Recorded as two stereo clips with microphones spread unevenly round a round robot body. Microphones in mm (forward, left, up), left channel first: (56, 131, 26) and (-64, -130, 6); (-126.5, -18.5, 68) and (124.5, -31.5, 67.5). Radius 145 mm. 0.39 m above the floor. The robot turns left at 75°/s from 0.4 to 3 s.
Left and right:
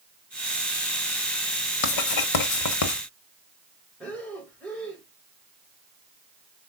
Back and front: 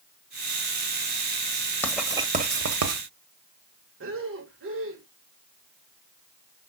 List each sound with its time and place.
1.8 s writing: 95° left, 1.0 m; by 3.0 s 10° left, 1.0 m
4.0 s breathing: 20° right, 1.5 m